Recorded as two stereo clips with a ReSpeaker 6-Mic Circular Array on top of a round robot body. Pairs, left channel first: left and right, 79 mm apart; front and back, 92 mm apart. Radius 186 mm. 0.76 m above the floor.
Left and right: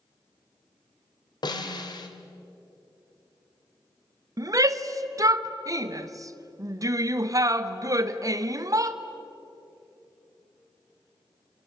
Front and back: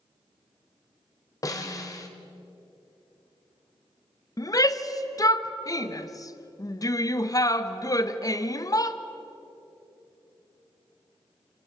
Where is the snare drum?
55° left, 1.7 m.